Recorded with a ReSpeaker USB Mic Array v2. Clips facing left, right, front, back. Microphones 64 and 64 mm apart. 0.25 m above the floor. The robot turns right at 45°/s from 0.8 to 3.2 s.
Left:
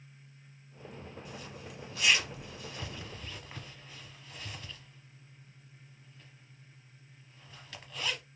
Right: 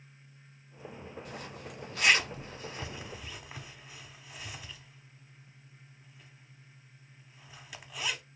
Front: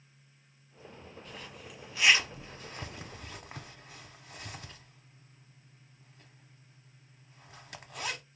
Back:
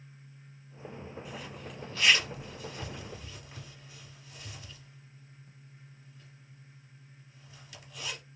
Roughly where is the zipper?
Right.